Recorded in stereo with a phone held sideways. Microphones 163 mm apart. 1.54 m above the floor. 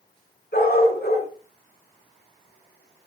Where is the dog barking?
70° left (ahead or behind), 6.5 m.